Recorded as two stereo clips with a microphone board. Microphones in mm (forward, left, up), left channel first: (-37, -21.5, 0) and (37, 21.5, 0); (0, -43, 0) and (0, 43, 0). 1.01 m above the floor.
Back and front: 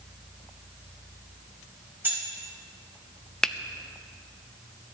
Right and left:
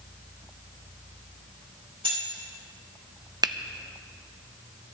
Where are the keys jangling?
95° left, 4 m.